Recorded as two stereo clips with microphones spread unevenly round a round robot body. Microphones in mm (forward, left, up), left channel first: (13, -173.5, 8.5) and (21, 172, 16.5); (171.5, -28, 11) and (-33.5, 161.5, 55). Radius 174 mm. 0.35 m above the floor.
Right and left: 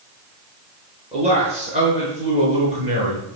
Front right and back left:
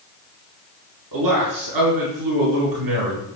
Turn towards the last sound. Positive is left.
turn(degrees=160)